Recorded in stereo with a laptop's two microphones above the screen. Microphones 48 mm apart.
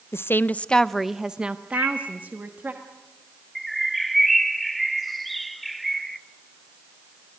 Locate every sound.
0.1 s a woman speaking: 55° left (ahead or behind), 0.5 m; by 2.7 s 40° right (ahead or behind), 1.4 m
1.7 s a microwave: 55° right (ahead or behind), 8.5 m
3.5 s a bird: 5° left (ahead or behind), 0.5 m